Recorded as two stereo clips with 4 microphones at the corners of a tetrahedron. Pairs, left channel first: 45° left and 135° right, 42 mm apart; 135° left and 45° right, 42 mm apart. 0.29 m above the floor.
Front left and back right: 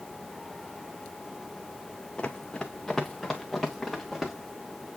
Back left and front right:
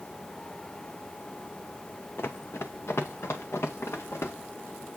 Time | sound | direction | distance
2.2 | running footsteps | 110° left | 0.9 m